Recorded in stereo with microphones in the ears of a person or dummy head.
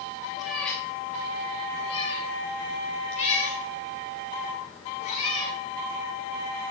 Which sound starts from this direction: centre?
A cat meowing, at 0.4 s.